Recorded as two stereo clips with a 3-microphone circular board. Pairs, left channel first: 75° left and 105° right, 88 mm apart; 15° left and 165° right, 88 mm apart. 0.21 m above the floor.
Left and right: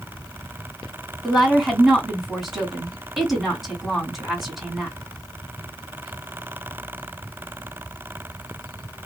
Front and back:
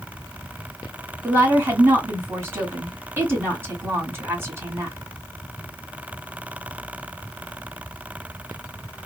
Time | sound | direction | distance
1.2 | a woman speaking | 170° left | 1.7 m